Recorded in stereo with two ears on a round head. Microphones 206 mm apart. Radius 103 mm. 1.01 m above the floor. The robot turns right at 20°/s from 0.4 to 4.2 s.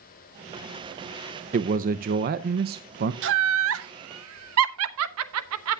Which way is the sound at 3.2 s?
55° right (ahead or behind).